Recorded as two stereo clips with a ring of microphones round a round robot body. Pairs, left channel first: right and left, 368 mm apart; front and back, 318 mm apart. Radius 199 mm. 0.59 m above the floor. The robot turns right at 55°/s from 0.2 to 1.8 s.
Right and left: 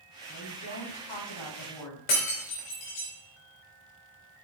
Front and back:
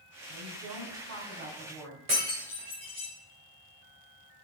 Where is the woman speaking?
170° right, 5.5 m; by 2.0 s 85° right, 5.5 m.